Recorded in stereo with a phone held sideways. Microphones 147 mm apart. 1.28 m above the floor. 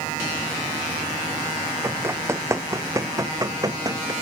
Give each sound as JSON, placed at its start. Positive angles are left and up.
{"t": 1.8, "sound": "running footsteps", "side_deg": -15}